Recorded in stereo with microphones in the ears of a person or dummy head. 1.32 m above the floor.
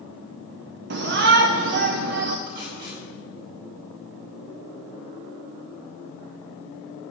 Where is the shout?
60° right (ahead or behind), 0.7 m.